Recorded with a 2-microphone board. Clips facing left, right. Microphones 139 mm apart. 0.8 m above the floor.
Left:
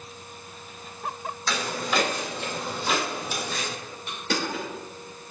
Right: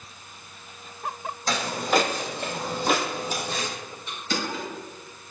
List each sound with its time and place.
1.5 s footsteps: 40° right (ahead or behind), 1.5 m; by 3.7 s 35° right (ahead or behind), 1.2 m
4.1 s crushing: 65° left (ahead or behind), 1.7 m